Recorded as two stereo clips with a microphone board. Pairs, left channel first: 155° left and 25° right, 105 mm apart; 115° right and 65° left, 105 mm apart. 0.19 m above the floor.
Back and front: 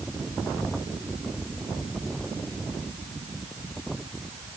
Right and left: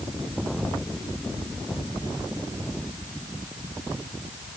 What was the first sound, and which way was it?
Only background noise.